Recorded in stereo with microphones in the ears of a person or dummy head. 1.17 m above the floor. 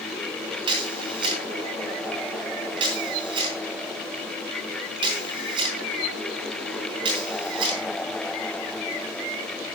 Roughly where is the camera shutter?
Right.